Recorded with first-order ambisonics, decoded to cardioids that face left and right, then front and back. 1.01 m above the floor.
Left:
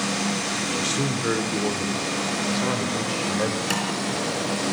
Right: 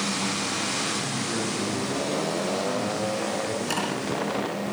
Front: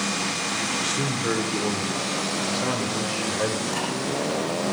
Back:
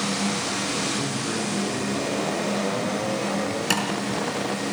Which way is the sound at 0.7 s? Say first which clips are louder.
Left 3 dB, front 1 dB; 70° left.